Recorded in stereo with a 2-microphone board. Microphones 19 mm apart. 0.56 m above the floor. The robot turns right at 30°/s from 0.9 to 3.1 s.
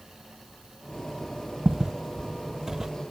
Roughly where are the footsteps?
Right.